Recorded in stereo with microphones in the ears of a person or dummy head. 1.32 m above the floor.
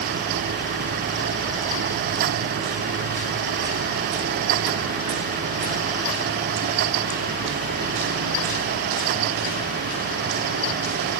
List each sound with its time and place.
Only background noise.